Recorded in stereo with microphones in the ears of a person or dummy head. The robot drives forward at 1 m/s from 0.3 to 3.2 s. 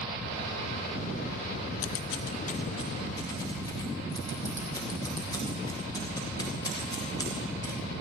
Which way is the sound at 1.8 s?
70° left (ahead or behind).